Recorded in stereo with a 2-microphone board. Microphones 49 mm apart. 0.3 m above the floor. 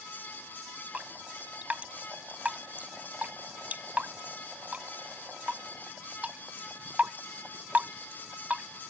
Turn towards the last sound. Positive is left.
turn(degrees=-35)  # may be behind; listen again after turning